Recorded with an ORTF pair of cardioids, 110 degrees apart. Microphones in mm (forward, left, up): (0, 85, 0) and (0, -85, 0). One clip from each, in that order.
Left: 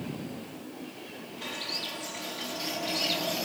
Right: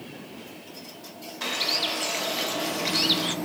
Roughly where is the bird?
Ahead right.